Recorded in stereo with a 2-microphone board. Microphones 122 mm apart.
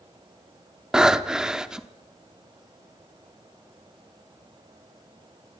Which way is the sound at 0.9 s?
5° right (ahead or behind).